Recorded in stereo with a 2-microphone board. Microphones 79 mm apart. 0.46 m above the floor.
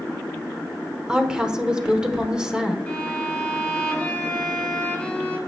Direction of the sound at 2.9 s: 20° left (ahead or behind).